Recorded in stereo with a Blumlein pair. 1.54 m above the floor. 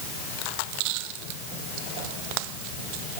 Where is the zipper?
I don't hear a zipper.